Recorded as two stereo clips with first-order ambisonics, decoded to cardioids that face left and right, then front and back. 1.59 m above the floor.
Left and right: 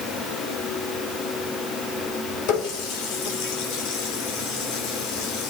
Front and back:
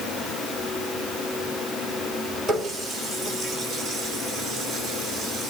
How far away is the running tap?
About 3 m.